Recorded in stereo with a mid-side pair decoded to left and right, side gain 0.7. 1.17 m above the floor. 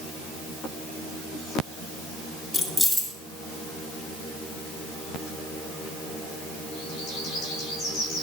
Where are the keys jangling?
Straight ahead, 3.5 m.